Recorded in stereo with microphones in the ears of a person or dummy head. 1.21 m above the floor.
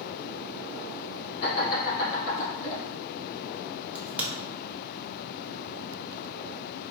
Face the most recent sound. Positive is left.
turn(degrees=-5)  # may be behind; listen again after turning